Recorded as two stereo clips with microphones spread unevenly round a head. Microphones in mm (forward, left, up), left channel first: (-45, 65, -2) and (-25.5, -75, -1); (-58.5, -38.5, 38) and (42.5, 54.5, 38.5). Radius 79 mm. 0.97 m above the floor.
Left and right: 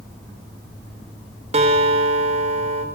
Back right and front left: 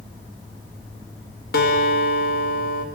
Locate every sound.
1.5 s a guitar: 125° right, 4 m